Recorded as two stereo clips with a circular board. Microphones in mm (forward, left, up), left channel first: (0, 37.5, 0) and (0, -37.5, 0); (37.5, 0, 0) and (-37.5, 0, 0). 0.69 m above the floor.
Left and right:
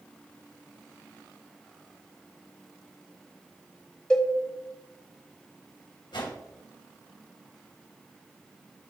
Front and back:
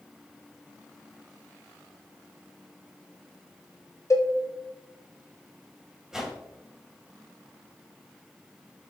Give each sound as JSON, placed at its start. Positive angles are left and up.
{"t": 4.1, "sound": "a cowbell", "azimuth_deg": 15, "distance_m": 1.3}
{"t": 6.1, "sound": "a whoosh", "azimuth_deg": 95, "distance_m": 1.7}